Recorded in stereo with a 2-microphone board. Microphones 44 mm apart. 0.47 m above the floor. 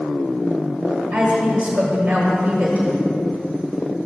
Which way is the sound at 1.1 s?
35° right (ahead or behind).